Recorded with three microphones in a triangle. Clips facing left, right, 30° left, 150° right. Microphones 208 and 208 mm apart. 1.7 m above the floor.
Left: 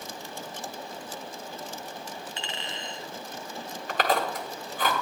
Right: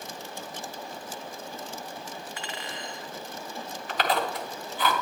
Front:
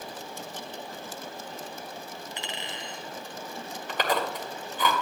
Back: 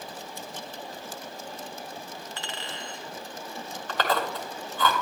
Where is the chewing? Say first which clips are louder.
Left 1 dB, back 1 dB; 100° left, 1.8 m.